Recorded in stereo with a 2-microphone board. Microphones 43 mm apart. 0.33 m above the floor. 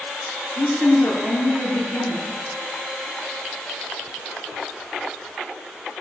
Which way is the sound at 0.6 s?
65° left (ahead or behind).